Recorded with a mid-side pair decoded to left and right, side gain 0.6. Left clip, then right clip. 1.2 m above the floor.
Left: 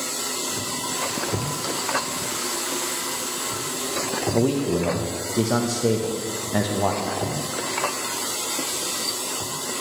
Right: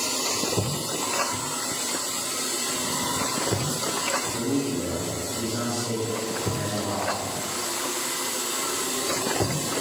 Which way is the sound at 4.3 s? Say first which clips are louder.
Left 5 dB; 70° left.